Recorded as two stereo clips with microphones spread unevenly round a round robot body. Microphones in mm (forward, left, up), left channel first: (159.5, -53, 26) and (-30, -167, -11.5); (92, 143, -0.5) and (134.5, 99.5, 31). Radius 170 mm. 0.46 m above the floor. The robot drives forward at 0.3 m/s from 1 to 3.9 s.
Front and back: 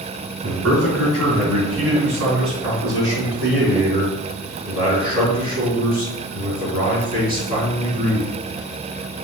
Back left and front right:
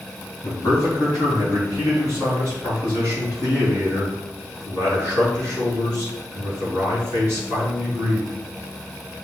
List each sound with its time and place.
0.4 s a man speaking: 170° left, 3.5 m